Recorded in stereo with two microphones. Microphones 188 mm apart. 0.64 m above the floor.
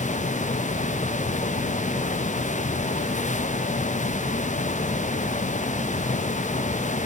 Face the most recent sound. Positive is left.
No sound to turn to.